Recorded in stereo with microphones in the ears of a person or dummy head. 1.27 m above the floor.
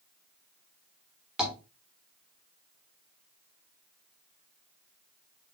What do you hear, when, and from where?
1.4 s tapping: centre (ahead or behind), 1.5 m